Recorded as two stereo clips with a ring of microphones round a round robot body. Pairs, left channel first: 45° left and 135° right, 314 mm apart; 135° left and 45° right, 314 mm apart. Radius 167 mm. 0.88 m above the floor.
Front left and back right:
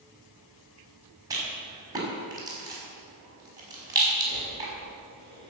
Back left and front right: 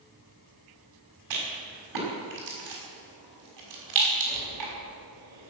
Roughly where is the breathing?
Ahead right.